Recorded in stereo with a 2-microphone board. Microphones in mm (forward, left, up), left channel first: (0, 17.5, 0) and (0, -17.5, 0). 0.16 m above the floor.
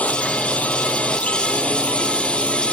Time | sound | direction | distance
0.0 | a drone | 45° left (ahead or behind) | ?